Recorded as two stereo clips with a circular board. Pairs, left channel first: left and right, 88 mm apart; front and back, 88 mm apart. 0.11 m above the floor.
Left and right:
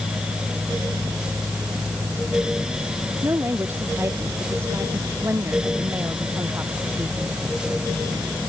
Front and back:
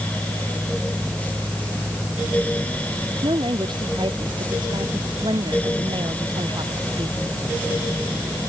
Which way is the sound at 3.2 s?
155° right.